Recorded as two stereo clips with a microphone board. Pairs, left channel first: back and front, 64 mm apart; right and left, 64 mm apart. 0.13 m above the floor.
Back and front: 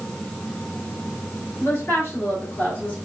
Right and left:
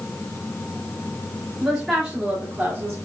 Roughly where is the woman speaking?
Behind.